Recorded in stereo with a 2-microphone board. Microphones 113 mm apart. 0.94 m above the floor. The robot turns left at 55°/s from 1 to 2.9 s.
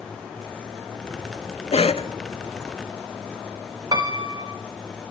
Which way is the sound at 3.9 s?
40° right (ahead or behind).